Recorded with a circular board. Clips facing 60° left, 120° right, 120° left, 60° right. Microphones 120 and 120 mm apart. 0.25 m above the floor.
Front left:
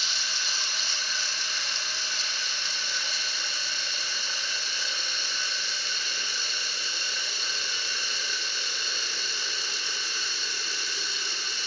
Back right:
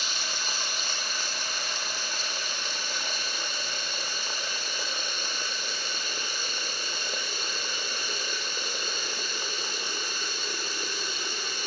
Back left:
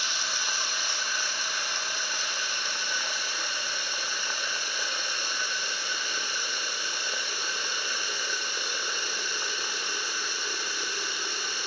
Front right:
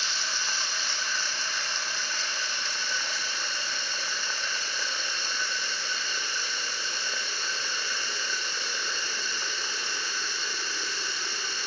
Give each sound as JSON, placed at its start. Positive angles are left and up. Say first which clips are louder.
{"t": 0.0, "sound": "running water", "louder": "back right 2 dB, even", "azimuth_deg": -165, "distance_m": 2.5}